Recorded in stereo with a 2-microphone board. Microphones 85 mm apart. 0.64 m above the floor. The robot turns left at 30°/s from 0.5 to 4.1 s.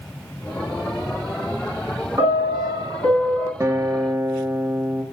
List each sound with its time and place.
2.2 s a piano: 150° right, 7.5 m; by 3.5 s 170° left, 7.5 m
3.6 s a guitar: 35° right (ahead or behind), 1.0 m